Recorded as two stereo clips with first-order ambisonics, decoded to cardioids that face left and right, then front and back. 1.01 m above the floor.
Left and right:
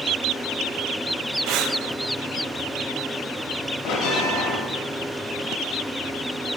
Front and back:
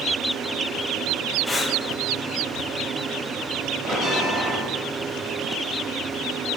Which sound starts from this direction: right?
Breathing, at 1.5 s.